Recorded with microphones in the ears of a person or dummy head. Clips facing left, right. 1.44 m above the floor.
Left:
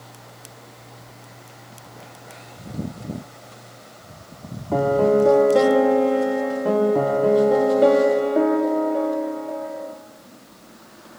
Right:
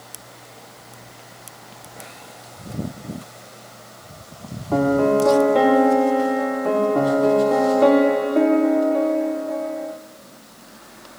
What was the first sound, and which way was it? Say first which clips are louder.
A piano: even; 10° left (ahead or behind).